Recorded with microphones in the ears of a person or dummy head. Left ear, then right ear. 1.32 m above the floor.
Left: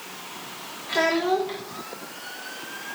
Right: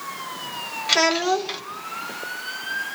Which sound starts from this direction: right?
A child speaking, at 0.9 s.